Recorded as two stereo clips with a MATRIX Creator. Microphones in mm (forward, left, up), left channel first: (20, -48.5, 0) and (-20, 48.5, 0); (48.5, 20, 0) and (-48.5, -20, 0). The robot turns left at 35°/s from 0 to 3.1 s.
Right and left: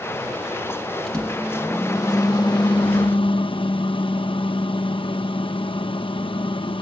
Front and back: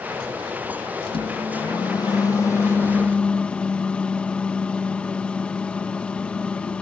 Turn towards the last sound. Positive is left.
turn(degrees=-55)